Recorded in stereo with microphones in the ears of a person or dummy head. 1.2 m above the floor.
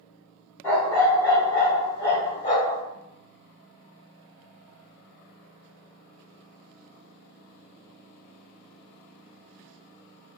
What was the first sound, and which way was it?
A dog barking, 15° left (ahead or behind).